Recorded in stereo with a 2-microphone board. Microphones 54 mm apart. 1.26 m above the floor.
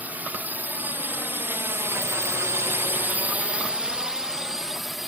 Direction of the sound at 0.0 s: 30° right (ahead or behind).